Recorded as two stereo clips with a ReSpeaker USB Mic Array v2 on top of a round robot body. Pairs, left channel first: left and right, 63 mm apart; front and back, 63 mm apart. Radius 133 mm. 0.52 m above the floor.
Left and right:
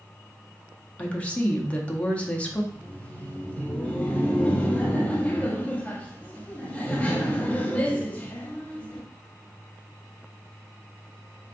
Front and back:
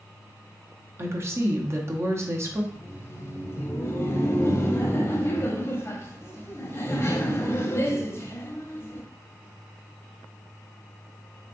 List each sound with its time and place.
1.0 s a woman speaking: 155° left, 0.9 m
2.7 s laughter: 30° left, 1.1 m